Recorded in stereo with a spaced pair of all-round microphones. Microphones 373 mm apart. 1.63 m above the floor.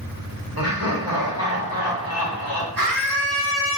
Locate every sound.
0.6 s laughter: 65° right (ahead or behind), 1.9 m
2.8 s a scream: 60° right (ahead or behind), 1.7 m